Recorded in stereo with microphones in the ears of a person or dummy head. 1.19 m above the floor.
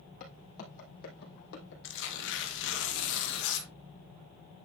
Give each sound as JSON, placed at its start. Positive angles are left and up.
{"t": 0.2, "sound": "footsteps", "side_deg": 45, "distance_m": 4.5}
{"t": 1.8, "sound": "tearing paper", "side_deg": 70, "distance_m": 1.9}